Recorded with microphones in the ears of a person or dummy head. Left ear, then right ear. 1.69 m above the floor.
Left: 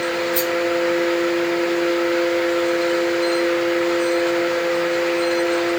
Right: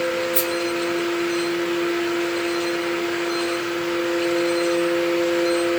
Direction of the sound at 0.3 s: 5° right (ahead or behind).